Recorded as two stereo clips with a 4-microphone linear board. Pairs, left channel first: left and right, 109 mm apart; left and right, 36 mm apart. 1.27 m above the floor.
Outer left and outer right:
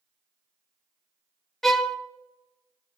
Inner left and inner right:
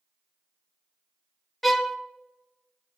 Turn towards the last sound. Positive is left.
turn(degrees=0)  # may be behind; listen again after turning